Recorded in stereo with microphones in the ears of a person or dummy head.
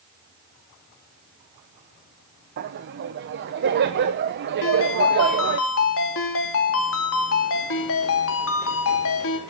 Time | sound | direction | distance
2.6 | laughter | 55° right (ahead or behind) | 0.9 m
4.6 | a ringtone | 70° left (ahead or behind) | 2.5 m